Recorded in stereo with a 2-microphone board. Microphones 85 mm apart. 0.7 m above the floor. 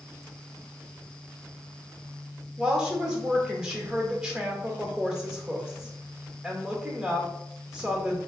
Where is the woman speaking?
10° right (ahead or behind), 1.6 m.